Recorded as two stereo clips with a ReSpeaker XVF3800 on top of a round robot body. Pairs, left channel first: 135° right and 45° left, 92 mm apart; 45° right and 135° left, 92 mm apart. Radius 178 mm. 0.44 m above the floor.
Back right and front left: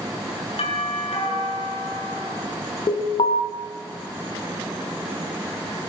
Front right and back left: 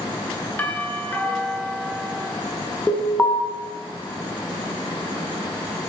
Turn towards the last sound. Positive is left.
turn(degrees=-115)